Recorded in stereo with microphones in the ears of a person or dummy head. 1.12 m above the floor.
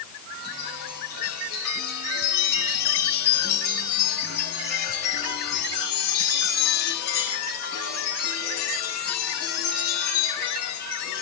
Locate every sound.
0.3 s a chime: 55° left (ahead or behind), 8.5 m